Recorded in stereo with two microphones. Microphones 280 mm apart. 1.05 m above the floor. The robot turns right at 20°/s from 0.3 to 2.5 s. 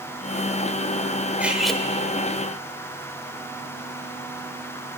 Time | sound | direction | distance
1.4 | cutlery clinking | 5° right (ahead or behind) | 1.9 m